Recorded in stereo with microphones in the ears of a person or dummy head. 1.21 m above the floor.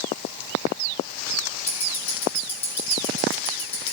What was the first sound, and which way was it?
Ticking, 10° left (ahead or behind).